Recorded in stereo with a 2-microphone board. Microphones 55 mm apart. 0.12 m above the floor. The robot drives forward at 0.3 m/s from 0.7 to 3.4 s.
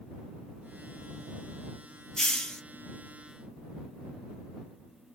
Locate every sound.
2.2 s a hiss: 10° left (ahead or behind), 1.1 m